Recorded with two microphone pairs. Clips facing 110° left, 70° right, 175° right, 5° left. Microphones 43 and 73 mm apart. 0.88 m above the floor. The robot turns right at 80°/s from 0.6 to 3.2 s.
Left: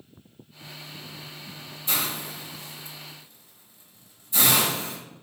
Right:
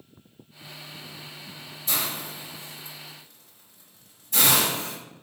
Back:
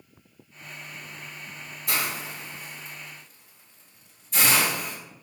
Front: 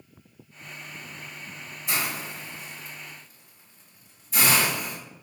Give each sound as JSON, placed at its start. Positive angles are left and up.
{"t": 1.9, "sound": "a hiss", "azimuth_deg": 170, "distance_m": 1.5}